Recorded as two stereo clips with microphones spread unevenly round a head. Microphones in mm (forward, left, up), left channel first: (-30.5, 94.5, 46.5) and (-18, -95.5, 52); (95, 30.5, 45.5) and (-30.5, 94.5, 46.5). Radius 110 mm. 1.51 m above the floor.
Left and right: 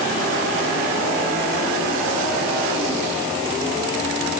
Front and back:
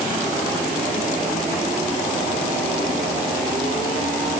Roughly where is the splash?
No splash in this recording.